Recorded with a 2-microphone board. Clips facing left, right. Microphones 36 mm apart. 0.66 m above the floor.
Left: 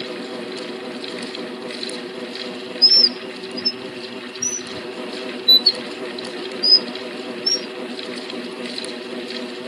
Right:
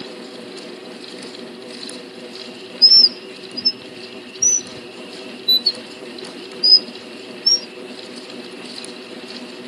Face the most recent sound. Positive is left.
turn(degrees=30)  # may be behind; listen again after turning